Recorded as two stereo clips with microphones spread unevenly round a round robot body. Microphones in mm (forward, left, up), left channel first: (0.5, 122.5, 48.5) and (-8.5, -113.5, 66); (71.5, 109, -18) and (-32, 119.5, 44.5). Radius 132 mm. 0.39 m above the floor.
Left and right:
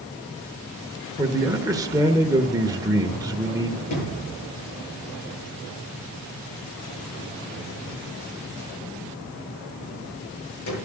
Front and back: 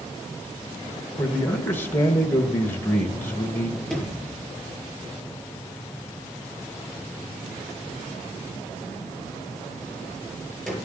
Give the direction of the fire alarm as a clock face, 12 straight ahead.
No fire alarm in this recording.